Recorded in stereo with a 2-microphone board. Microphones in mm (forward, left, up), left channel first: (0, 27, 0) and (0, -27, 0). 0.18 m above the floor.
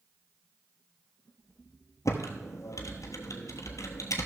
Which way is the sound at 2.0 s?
80° left.